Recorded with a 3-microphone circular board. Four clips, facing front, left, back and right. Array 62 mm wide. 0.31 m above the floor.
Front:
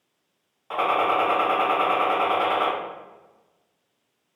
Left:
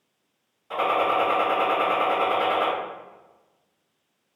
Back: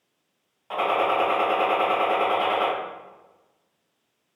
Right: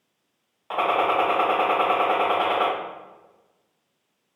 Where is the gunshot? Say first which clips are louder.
Right 1 dB, front 1 dB; 90° right, 1.2 m.